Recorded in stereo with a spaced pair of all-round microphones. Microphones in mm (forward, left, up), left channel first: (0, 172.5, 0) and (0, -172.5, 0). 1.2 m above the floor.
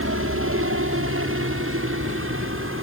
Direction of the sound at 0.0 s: 35° right (ahead or behind).